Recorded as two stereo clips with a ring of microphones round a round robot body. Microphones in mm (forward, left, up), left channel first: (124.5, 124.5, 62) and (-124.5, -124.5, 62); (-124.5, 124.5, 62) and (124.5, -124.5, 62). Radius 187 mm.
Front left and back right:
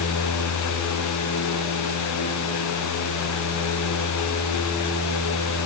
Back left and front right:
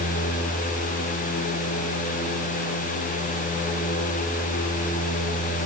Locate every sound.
Only background noise.